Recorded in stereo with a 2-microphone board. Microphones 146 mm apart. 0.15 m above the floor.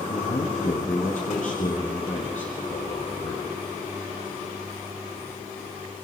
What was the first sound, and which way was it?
A man speaking, 55° left (ahead or behind).